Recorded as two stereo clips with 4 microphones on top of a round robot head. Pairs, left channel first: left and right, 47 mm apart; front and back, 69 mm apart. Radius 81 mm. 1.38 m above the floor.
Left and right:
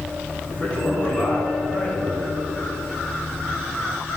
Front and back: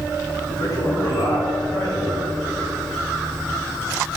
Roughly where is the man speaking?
Ahead left.